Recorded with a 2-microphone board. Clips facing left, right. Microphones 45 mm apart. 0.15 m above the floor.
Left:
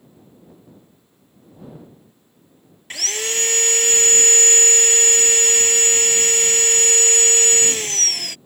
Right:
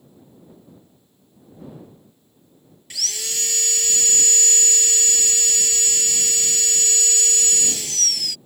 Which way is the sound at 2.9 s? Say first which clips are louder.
Left 5 dB; 45° left (ahead or behind).